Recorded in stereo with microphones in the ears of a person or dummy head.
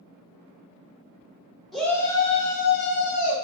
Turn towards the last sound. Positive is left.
turn(degrees=70)  # may be behind; listen again after turning